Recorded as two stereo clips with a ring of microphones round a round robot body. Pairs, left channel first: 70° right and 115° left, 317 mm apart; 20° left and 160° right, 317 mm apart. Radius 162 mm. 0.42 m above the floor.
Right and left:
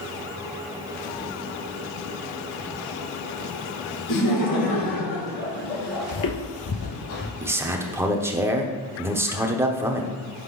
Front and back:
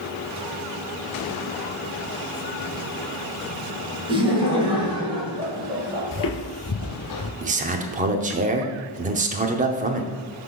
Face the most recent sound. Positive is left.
turn(degrees=-175)